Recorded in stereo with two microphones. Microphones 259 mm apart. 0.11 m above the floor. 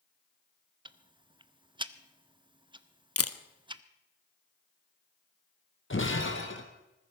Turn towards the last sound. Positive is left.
turn(degrees=50)  # may be behind; listen again after turning